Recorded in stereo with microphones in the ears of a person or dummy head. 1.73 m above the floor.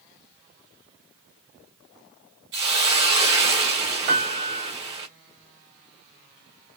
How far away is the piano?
About 2.5 m.